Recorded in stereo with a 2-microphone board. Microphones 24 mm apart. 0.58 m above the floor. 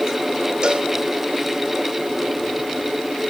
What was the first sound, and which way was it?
A cowbell, 40° right (ahead or behind).